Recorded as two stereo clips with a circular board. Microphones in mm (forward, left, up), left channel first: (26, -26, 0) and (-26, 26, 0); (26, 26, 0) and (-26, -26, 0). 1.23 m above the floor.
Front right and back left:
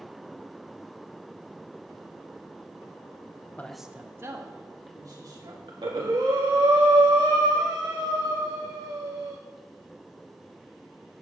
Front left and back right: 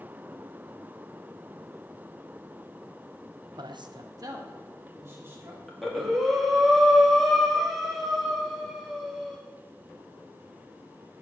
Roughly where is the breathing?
Behind left.